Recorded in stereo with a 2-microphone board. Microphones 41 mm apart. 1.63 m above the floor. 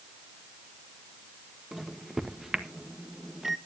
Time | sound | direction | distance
1.7 | a microwave | 10° right (ahead or behind) | 1.4 m